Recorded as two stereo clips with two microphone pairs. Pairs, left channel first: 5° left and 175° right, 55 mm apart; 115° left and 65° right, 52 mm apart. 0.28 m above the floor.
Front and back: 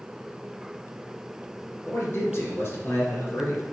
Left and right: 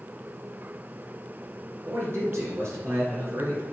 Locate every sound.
1.9 s a man speaking: 35° right, 4 m